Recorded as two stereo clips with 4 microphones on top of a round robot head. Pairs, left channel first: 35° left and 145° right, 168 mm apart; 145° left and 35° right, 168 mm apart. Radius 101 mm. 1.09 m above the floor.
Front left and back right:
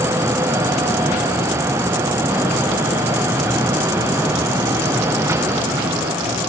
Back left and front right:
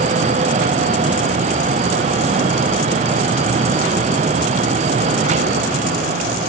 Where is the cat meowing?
I don't hear a cat meowing.